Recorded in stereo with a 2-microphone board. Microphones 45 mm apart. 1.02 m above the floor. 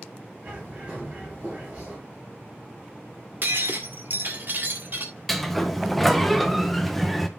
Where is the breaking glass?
50° right (ahead or behind), 1.7 m.